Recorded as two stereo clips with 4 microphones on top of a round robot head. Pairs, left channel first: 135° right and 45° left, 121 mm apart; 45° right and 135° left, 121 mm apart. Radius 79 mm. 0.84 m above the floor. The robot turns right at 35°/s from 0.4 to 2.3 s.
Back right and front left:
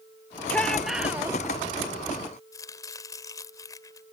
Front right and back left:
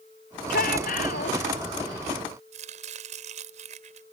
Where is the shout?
55° right; by 1.4 s 25° right.